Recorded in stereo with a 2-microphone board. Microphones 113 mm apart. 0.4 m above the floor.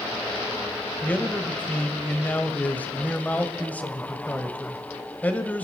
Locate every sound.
1.0 s a man speaking: 15° left (ahead or behind), 1.5 m